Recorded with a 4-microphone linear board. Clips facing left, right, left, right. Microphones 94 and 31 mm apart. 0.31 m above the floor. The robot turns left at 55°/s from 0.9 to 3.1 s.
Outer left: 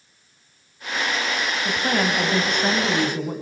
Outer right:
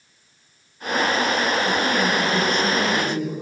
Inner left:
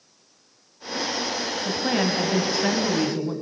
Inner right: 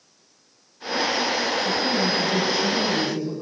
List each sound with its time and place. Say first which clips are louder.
1.6 s a woman speaking: outer right 2 dB, inner right 1 dB; 140° left, 2.5 m; by 3.3 s 60° left, 2.5 m